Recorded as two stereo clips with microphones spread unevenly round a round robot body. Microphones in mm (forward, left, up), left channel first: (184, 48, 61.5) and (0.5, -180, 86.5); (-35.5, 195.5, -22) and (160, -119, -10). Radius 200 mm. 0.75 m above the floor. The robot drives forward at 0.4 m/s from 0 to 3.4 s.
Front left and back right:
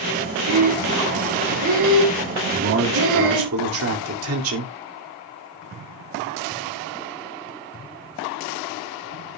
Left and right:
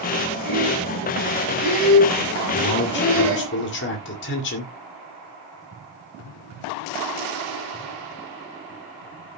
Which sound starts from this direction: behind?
A man speaking, at 2.5 s.